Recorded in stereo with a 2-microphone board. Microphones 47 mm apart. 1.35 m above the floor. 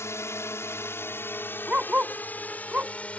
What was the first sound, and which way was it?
A drone, 70° left (ahead or behind).